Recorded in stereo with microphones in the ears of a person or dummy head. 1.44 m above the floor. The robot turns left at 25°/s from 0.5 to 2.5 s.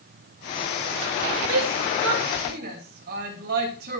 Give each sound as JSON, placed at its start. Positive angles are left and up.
{"t": 1.5, "sound": "a shout", "side_deg": -75, "distance_m": 3.0}